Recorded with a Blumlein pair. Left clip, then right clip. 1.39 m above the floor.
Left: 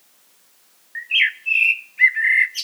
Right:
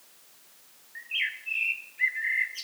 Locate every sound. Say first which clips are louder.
0.9 s a bird: left 12 dB; 60° left, 0.5 m